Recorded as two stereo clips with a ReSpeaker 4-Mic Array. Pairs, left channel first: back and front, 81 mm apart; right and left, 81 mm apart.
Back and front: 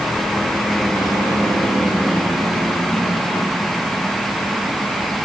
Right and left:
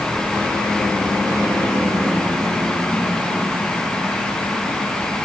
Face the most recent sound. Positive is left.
No sound to turn to.